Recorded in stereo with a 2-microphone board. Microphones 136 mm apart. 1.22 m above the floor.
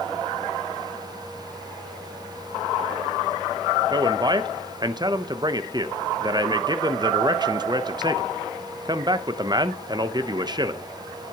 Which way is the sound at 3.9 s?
30° right (ahead or behind).